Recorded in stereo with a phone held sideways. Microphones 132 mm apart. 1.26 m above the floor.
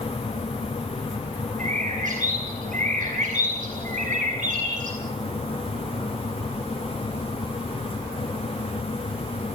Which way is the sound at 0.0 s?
45° left (ahead or behind).